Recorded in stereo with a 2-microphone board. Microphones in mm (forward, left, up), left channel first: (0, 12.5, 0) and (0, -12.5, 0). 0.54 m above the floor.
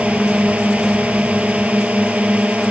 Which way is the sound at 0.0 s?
70° right (ahead or behind).